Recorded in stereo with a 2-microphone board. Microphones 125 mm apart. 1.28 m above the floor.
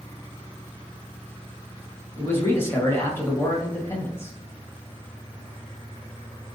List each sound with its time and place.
2.2 s a man speaking: 20° left (ahead or behind), 1.6 m